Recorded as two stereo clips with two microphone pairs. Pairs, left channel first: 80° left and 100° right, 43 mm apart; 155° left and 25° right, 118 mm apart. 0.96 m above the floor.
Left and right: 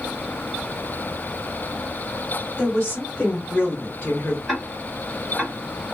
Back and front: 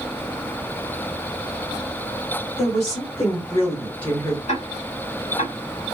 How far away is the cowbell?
No cowbell in this recording.